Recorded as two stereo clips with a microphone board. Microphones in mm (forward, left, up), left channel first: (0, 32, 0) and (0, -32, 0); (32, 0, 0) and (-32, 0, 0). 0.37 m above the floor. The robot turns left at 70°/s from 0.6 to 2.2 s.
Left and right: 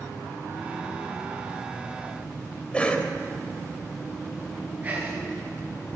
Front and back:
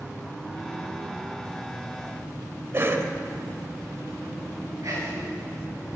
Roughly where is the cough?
Behind left.